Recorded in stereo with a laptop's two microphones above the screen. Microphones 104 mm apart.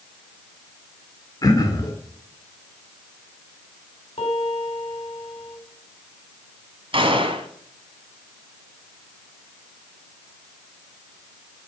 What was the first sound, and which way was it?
Throat clearing, 35° left (ahead or behind).